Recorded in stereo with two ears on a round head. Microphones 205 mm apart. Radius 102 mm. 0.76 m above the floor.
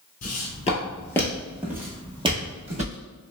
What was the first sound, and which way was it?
Footsteps, 40° left (ahead or behind).